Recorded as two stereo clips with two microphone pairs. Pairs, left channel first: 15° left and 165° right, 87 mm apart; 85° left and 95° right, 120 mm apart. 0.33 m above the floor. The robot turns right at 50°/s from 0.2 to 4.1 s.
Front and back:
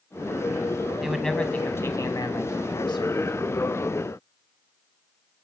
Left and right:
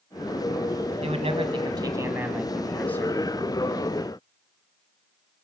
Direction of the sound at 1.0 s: 85° right.